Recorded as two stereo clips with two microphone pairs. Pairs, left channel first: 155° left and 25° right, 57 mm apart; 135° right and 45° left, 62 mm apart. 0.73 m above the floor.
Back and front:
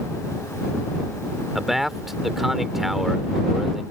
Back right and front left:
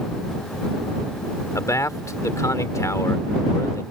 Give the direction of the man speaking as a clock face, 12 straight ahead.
4 o'clock.